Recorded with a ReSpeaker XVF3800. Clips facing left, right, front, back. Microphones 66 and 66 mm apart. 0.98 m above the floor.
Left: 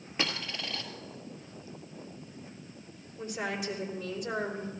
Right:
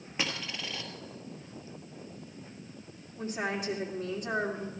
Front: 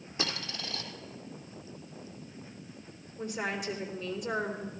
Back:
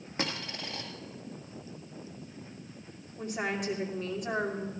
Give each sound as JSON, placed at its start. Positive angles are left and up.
{"t": 0.2, "sound": "a dropped coin", "azimuth_deg": 180, "distance_m": 1.8}
{"t": 3.2, "sound": "a woman speaking", "azimuth_deg": -140, "distance_m": 3.0}